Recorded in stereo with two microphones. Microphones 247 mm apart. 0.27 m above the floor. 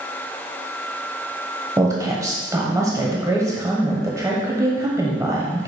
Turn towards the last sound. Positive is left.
turn(degrees=-15)  # may be behind; listen again after turning